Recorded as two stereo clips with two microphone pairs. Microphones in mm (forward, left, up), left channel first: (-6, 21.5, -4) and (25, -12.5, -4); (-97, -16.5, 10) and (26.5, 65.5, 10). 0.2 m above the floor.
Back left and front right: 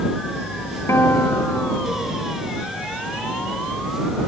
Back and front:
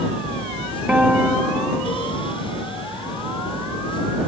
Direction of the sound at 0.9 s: 115° left.